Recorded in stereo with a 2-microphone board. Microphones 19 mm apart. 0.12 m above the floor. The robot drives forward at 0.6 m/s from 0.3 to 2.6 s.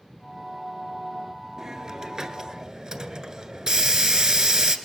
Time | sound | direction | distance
1.6 | a hiss | 40° right (ahead or behind) | 1.5 m